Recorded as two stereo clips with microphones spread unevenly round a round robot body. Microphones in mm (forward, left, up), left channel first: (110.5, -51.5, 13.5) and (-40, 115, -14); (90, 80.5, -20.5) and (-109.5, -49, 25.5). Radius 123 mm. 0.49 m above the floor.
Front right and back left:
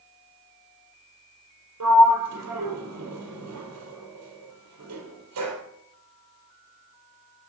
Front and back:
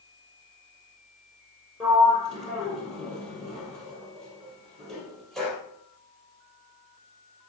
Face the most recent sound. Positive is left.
turn(degrees=120)